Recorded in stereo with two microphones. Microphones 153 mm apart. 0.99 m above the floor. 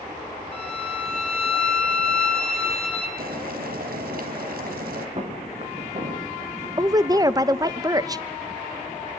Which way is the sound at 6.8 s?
25° right (ahead or behind).